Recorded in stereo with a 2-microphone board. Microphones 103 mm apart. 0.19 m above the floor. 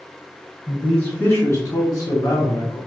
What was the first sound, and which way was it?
A man speaking, 10° left (ahead or behind).